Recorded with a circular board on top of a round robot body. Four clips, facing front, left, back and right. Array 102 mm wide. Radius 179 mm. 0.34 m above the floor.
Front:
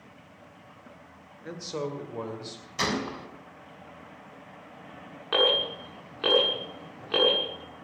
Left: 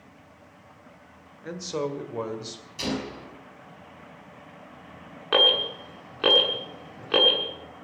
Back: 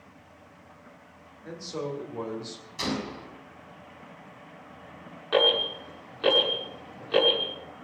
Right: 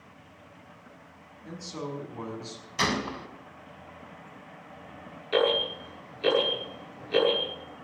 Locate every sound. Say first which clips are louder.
1.4 s a man speaking: left 7 dB, front 1 dB; 65° left, 2.5 m; by 2.7 s 85° left, 3 m
2.8 s a gunshot: right 2 dB, front 2 dB; 60° right, 2.5 m
5.3 s an alarm: even, back 2 dB; 80° left, 7 m